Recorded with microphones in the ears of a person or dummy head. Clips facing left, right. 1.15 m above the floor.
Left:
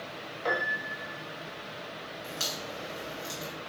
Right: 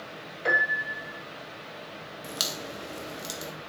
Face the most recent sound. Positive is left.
turn(degrees=-45)  # may be behind; listen again after turning